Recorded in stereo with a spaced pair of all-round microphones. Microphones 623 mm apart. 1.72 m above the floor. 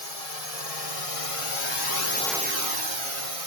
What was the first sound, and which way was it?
A drone, 75° left (ahead or behind).